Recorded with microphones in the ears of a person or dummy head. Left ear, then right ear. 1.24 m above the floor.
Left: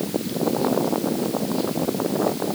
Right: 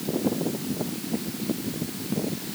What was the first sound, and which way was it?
Only background noise.